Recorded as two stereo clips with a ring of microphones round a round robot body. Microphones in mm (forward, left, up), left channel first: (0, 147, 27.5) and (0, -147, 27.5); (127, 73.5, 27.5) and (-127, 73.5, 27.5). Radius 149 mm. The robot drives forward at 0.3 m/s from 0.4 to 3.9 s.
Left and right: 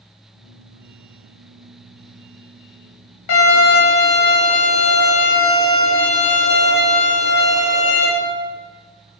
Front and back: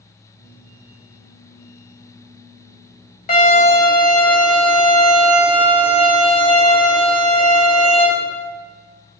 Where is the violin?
60° left, 2.5 m; by 8.1 s 65° left, 2.5 m.